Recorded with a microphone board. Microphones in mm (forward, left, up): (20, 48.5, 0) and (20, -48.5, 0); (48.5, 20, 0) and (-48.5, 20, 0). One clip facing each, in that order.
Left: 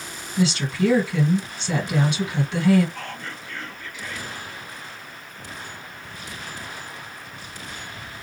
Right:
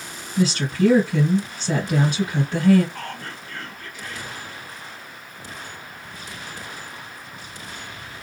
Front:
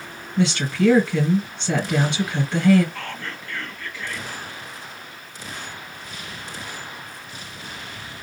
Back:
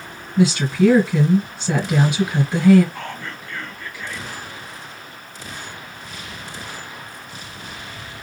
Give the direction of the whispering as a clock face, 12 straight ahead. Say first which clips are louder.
Right 1 dB, back 1 dB; 4 o'clock.